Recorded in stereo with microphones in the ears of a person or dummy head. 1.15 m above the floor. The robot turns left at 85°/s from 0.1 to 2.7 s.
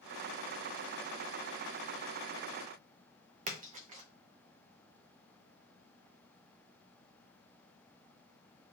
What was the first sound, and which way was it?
A splash, 45° right (ahead or behind).